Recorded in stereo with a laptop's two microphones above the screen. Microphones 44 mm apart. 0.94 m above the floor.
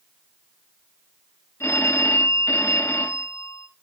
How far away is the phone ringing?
About 1.1 m.